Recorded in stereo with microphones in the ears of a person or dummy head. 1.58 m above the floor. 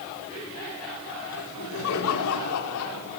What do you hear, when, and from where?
1.3 s laughter: 80° left, 5 m; by 3.2 s 85° left, 5 m